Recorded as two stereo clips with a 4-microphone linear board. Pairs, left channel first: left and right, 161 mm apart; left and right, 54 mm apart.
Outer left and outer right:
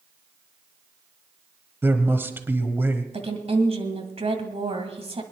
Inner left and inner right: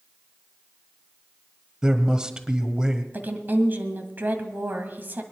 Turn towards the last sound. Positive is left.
turn(degrees=-40)  # may be behind; listen again after turning